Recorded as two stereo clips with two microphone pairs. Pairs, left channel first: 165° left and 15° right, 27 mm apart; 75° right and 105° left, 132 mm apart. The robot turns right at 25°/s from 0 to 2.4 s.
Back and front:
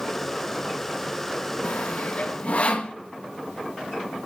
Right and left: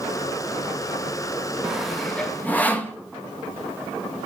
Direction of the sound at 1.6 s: 175° right.